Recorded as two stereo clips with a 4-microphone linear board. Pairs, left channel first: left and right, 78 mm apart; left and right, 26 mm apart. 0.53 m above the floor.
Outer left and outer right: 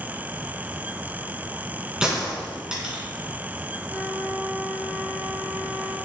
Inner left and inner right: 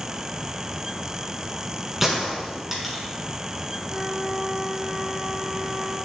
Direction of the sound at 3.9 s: 15° left (ahead or behind).